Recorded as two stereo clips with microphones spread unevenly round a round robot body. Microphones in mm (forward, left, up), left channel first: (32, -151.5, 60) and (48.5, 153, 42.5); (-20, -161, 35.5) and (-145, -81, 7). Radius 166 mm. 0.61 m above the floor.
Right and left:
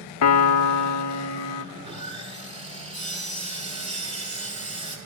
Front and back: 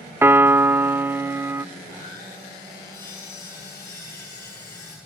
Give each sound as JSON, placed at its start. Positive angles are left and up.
{"t": 0.2, "sound": "a piano", "azimuth_deg": -130, "distance_m": 0.6}
{"t": 1.8, "sound": "sawing", "azimuth_deg": 20, "distance_m": 6.5}